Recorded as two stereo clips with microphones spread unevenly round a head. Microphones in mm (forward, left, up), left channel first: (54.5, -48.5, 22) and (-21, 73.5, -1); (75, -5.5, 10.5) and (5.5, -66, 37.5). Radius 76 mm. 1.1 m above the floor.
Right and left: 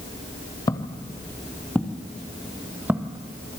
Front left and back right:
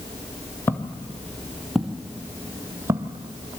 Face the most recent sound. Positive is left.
turn(degrees=-160)